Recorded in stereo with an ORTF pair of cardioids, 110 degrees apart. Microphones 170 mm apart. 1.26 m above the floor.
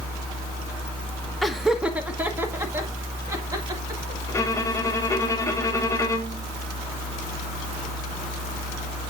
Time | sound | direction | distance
1.4 | laughter | straight ahead | 1.1 m
4.3 | a violin | 20° left | 1.2 m